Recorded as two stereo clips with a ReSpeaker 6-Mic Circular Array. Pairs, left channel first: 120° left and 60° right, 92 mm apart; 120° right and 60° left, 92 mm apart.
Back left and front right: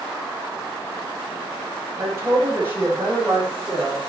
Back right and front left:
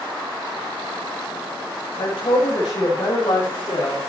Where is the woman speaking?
120° right, 5.5 m; by 4.0 s 140° right, 6.5 m.